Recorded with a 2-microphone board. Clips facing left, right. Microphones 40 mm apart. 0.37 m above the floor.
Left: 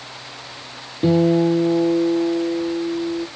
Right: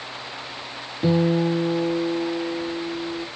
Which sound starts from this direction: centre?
A guitar, at 1.0 s.